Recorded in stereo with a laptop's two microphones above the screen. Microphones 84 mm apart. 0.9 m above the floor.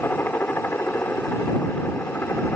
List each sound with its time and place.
0.0 s a helicopter: 25° left (ahead or behind)